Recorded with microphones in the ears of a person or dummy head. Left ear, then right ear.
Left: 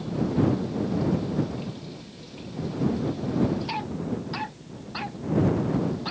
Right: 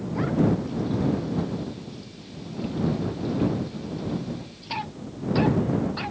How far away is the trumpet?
No trumpet in this recording.